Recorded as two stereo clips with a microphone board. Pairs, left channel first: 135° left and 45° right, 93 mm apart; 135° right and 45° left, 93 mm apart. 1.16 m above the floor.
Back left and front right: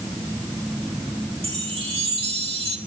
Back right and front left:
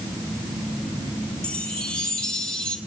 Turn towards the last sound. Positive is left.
turn(degrees=-55)